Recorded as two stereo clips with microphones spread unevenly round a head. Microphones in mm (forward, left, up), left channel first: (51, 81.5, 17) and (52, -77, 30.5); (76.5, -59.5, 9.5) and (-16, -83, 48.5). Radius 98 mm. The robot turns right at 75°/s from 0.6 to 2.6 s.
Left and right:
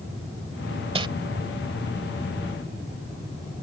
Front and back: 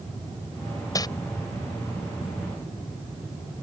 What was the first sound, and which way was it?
Crumpling, 50° right.